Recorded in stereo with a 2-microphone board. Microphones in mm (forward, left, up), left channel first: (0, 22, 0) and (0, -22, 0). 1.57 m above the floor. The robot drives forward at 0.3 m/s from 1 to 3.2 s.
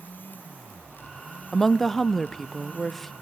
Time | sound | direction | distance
1.5 | a woman speaking | 10° left (ahead or behind) | 0.5 m